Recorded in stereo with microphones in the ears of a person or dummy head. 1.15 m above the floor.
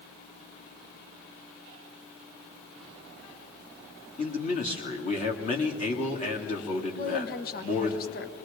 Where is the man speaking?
30° left (ahead or behind), 2.5 m.